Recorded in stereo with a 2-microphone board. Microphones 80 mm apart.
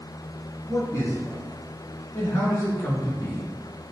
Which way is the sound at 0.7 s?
40° left (ahead or behind).